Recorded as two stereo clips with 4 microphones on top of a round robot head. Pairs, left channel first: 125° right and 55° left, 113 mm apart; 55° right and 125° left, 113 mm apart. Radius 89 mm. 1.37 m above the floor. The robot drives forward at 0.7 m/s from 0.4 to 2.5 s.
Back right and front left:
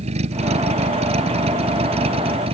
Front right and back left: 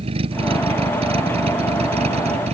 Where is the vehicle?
85° left; by 2.5 s 90° left.